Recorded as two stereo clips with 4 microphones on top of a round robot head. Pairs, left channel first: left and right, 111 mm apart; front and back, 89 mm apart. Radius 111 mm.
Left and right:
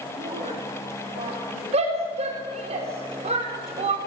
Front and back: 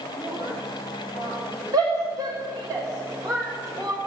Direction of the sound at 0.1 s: 125° right.